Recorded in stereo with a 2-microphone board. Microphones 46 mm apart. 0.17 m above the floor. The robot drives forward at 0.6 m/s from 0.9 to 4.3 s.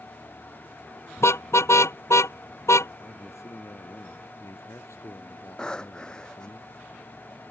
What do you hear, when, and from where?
1.2 s a car horn: 65° left (ahead or behind); by 2.9 s 75° left (ahead or behind)
3.0 s a man speaking: 85° left
5.6 s breathing: 15° left (ahead or behind)